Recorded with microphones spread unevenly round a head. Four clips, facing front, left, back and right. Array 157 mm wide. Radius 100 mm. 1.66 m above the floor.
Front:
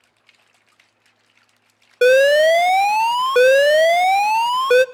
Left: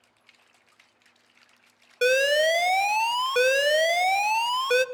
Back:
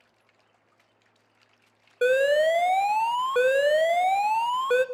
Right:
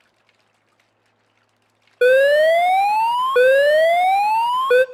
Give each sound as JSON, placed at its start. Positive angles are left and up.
{"t": 2.0, "sound": "an alarm", "azimuth_deg": -35, "distance_m": 0.5}